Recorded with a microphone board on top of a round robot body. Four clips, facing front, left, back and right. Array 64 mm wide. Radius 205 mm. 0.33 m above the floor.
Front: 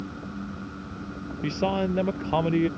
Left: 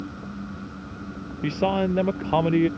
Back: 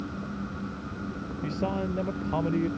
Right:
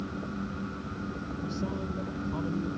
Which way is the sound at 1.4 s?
70° left.